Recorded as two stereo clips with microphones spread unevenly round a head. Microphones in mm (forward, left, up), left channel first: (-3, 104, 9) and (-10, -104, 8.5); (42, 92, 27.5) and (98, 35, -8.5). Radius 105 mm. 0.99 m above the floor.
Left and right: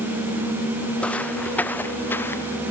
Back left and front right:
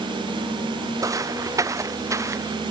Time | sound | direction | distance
1.0 | footsteps | 5° left | ?